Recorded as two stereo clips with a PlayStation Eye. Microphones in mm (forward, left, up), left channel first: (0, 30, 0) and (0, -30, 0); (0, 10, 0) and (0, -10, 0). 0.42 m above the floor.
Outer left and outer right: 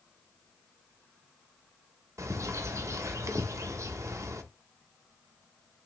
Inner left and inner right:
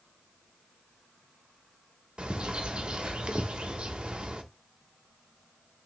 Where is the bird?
65° right (ahead or behind), 0.5 m.